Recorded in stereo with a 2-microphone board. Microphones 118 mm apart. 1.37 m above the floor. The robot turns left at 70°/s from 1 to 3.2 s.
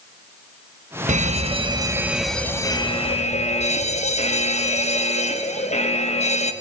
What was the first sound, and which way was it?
An alarm, 100° right.